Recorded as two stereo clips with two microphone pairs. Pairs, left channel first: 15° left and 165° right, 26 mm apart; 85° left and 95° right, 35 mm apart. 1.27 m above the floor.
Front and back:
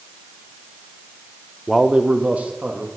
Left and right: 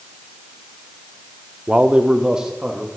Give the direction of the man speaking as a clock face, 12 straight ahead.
3 o'clock.